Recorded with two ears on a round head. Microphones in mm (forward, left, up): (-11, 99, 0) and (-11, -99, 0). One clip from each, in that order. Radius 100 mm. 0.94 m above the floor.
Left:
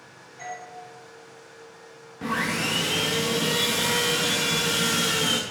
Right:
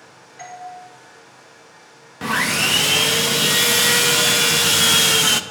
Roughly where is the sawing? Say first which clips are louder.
Right 7 dB; right.